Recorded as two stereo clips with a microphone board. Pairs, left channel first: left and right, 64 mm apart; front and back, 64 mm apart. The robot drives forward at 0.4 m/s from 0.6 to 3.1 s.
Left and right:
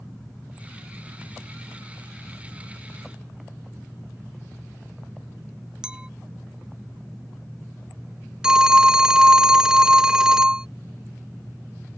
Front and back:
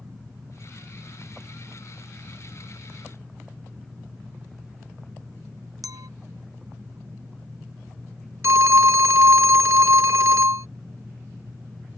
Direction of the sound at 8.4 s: 165° right.